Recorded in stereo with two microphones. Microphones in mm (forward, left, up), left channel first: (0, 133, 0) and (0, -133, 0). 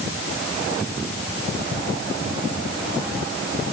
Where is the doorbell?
I don't hear a doorbell.